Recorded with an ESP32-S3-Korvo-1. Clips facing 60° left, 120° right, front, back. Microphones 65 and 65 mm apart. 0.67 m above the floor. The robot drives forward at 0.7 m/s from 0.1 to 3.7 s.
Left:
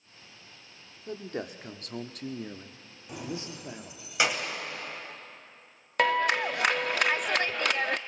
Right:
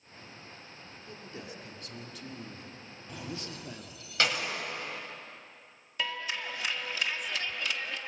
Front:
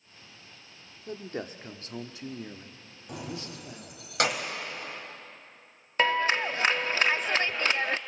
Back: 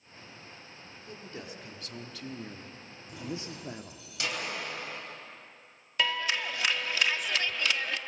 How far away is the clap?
About 0.6 m.